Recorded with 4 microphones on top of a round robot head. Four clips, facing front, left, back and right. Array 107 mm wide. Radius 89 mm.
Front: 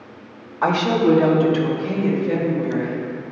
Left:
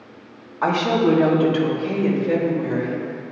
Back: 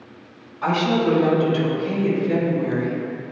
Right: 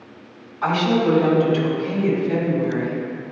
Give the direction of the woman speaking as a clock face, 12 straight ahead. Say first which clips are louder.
Even, front 2 dB; 11 o'clock.